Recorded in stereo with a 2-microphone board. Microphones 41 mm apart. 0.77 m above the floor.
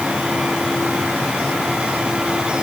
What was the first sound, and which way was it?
Only background noise.